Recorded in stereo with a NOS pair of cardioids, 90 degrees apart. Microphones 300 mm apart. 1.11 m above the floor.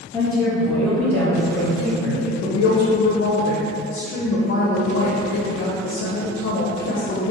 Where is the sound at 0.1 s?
10° left, 1.4 m; by 2.3 s straight ahead, 2.5 m.